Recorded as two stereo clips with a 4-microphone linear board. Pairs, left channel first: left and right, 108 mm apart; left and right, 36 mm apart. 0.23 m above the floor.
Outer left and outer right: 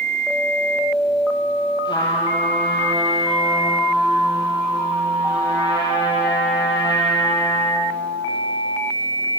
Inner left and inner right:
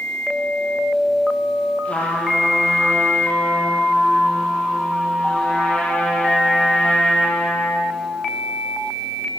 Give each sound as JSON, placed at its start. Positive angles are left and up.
{"t": 1.9, "sound": "a trumpet", "side_deg": 40, "distance_m": 8.0}